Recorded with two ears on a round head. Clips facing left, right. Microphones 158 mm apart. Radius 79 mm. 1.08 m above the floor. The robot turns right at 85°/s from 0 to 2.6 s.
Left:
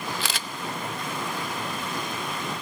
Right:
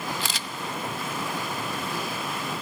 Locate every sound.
0.2 s a camera shutter: 60° left (ahead or behind), 0.8 m; by 0.5 s 35° left (ahead or behind), 0.8 m